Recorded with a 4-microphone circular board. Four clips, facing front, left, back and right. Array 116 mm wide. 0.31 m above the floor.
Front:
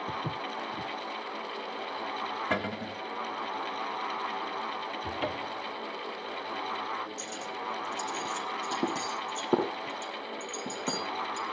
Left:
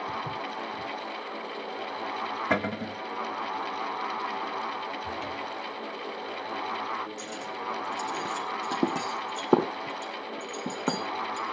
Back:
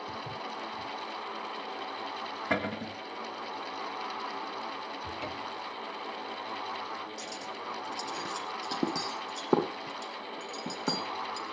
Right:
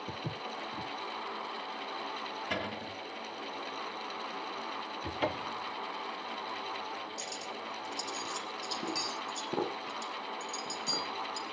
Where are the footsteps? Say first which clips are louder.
Left 7 dB, front 4 dB; 30° right, 1.7 m.